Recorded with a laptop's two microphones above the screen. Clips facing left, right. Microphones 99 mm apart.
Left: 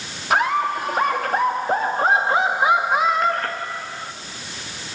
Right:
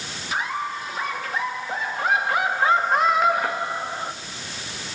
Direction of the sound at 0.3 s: 70° left (ahead or behind).